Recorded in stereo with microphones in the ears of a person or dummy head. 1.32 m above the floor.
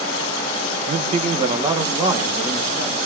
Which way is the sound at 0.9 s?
45° right (ahead or behind).